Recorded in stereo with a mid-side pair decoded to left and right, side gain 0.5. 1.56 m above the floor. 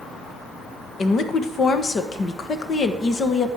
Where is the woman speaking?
45° left, 1.4 m.